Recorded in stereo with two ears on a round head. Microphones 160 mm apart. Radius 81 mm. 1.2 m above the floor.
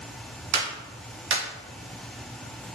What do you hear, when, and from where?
0.5 s a clap: 65° right (ahead or behind), 0.9 m